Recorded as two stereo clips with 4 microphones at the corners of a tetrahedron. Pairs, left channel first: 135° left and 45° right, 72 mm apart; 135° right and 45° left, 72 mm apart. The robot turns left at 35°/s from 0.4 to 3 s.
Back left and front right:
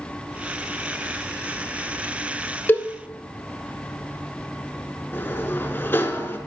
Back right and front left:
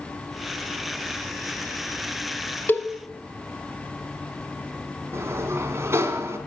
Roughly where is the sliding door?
Left.